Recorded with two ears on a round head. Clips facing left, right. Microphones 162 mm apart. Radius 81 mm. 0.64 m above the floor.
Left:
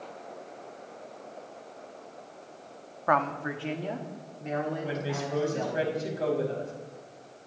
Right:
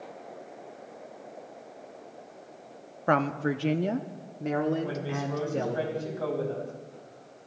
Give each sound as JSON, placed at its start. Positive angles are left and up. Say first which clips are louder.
{"t": 3.1, "sound": "a woman speaking", "louder": "right 2 dB", "side_deg": -30, "distance_m": 0.7}
{"t": 4.8, "sound": "a woman speaking", "louder": "even", "side_deg": 25, "distance_m": 5.0}